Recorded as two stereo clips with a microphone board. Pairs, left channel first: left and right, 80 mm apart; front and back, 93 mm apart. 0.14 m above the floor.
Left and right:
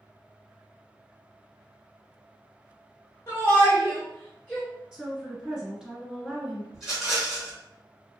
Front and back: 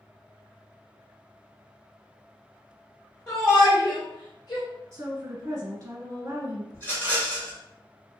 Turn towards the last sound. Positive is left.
turn(degrees=-15)